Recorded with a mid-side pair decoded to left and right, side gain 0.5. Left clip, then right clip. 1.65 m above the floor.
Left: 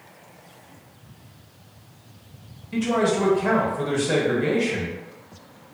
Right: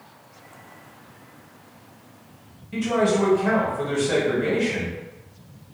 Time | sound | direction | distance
2.7 | a man speaking | 20° left | 1.3 m